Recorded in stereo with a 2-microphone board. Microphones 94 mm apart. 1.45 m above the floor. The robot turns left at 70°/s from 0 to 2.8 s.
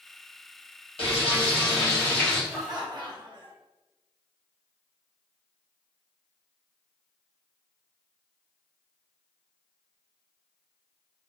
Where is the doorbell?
No doorbell in this recording.